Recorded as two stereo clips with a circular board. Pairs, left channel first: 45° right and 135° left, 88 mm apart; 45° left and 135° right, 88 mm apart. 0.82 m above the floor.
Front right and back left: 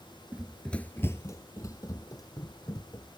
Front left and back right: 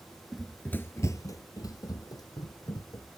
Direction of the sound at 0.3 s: 160° left.